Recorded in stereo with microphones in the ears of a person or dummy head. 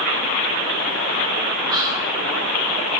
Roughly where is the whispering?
Centre.